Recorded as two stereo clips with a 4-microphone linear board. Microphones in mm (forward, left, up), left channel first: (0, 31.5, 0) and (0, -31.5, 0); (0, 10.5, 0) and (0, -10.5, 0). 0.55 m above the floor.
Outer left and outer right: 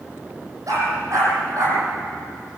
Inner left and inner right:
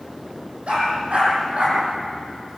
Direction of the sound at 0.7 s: 55° right (ahead or behind).